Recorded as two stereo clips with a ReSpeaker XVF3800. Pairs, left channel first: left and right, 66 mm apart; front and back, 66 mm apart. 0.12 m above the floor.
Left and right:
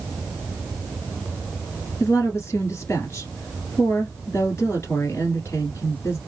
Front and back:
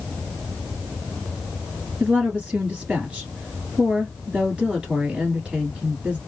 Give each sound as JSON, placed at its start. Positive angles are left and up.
{"t": 2.0, "sound": "a woman speaking", "azimuth_deg": 115, "distance_m": 1.4}